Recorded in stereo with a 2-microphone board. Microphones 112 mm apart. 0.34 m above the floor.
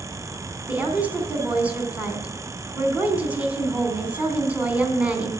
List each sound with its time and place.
0.7 s a woman speaking: 15° right (ahead or behind), 3 m